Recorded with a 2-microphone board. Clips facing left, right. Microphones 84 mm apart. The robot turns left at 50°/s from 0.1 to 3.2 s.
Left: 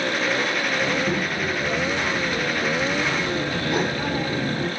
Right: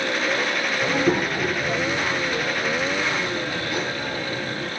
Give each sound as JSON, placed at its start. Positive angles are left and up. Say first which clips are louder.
{"t": 0.8, "sound": "a child speaking", "louder": "right 6 dB", "azimuth_deg": -90, "distance_m": 1.2}